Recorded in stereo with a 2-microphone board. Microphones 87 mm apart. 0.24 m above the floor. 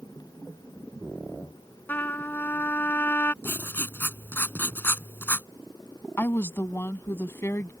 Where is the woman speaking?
30° left (ahead or behind).